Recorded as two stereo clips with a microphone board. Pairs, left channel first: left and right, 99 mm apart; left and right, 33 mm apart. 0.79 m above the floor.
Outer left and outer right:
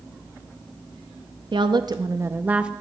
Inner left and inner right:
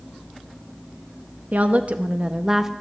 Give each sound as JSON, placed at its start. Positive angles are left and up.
{"t": 1.5, "sound": "a woman speaking", "side_deg": -50, "distance_m": 0.6}